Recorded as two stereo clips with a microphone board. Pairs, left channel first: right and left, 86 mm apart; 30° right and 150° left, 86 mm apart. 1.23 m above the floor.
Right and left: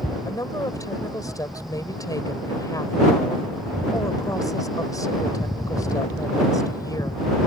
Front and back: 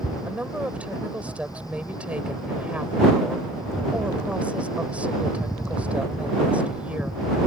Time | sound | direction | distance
0.3 | a woman speaking | 135° right | ?